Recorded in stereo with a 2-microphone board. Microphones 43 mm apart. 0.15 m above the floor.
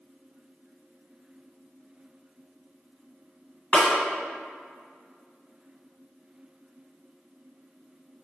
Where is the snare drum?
30° left (ahead or behind), 1.4 m.